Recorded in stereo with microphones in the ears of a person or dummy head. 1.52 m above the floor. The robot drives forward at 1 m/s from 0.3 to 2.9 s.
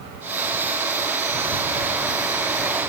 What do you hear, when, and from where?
Only background noise.